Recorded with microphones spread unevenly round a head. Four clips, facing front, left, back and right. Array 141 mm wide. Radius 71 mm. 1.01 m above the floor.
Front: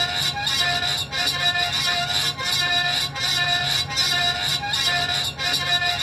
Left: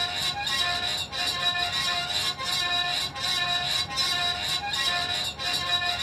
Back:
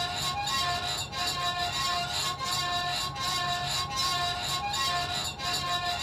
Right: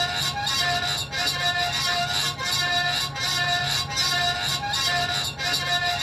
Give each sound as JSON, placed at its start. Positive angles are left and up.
{"t": 0.0, "sound": "a fan", "azimuth_deg": -25, "distance_m": 2.0}